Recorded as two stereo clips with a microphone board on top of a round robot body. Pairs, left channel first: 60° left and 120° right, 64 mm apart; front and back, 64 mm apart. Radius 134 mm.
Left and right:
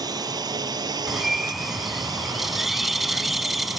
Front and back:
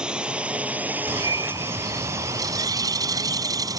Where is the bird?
155° left.